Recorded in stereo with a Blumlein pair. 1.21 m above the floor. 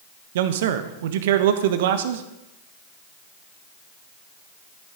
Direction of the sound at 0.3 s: 55° right.